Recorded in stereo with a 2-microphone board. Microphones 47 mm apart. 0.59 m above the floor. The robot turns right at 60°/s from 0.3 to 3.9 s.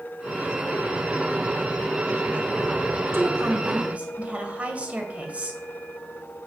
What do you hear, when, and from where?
3.1 s a woman speaking: 75° right, 2 m; by 5.6 s 30° right, 2 m